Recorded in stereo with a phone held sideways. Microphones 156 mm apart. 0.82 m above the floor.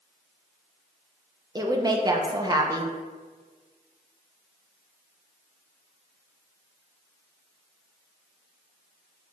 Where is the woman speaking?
25° right (ahead or behind), 0.5 m.